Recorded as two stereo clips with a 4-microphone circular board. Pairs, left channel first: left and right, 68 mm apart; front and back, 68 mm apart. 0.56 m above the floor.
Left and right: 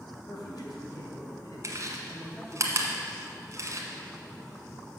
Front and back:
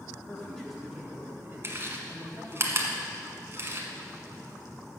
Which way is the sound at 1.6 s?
130° right.